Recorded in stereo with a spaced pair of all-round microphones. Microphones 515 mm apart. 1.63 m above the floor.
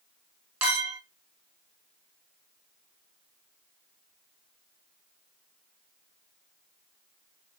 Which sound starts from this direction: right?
A clink, at 0.6 s.